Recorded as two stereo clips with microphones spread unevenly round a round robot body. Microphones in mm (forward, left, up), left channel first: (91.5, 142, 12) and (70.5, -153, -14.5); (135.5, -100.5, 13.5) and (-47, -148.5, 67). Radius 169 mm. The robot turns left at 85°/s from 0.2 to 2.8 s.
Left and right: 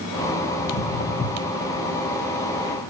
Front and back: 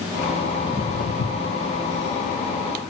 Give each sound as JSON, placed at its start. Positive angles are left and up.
{"t": 0.6, "sound": "footsteps", "azimuth_deg": 115, "distance_m": 1.3}